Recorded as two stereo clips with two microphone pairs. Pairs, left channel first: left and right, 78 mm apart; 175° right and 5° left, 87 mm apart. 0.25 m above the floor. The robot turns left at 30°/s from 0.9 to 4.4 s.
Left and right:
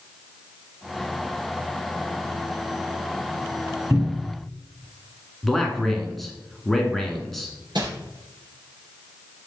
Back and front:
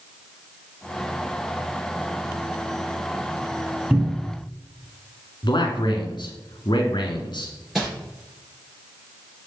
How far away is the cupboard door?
About 1.5 m.